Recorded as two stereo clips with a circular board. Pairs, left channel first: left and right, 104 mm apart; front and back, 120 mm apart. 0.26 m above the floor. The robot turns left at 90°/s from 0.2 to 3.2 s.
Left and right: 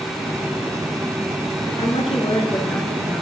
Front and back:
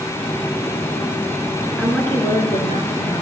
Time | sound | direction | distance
1.7 | a woman speaking | 110° left | 3.5 m